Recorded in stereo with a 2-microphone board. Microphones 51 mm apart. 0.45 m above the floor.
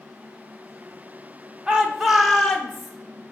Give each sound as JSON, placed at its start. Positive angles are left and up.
{"t": 1.7, "sound": "a shout", "side_deg": -20, "distance_m": 0.8}